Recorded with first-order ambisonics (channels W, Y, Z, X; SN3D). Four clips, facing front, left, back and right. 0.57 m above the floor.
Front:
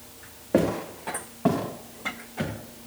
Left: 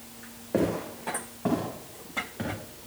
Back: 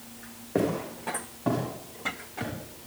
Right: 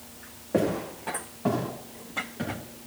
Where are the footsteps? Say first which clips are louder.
Right 1 dB, front 4 dB; straight ahead, 9 m; by 2.5 s 10° left, 9.5 m.